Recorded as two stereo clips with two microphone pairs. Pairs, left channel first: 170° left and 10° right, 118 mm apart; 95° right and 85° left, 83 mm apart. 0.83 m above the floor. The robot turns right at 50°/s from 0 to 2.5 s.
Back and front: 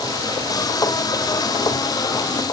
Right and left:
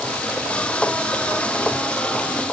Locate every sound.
Only background noise.